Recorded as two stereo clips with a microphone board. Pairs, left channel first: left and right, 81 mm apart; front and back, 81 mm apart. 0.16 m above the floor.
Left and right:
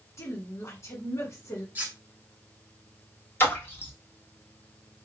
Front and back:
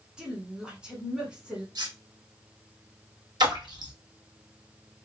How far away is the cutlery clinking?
About 1.7 m.